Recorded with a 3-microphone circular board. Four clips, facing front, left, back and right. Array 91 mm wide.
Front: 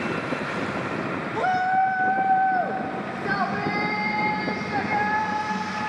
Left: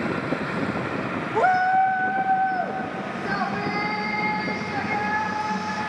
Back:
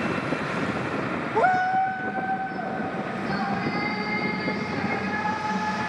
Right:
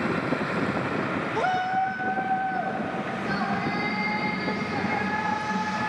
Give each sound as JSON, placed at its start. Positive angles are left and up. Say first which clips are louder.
{"t": 1.4, "sound": "a shout", "louder": "left 7 dB, back 1 dB", "azimuth_deg": 140, "distance_m": 0.6}